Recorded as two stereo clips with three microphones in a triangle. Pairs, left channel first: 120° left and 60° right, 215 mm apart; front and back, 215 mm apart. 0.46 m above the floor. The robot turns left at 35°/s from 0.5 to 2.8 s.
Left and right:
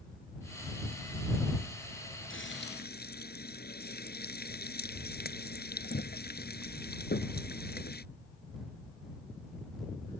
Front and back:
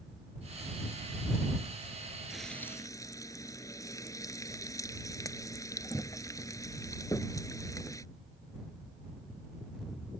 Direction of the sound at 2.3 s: 95° left.